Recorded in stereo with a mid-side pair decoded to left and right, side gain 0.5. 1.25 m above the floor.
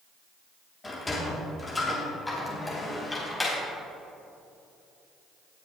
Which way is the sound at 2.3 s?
15° left.